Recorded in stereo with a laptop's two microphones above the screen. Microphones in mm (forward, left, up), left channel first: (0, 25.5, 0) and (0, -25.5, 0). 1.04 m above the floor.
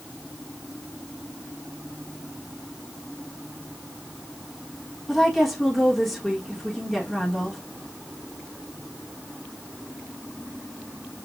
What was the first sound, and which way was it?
A woman speaking, 5° left (ahead or behind).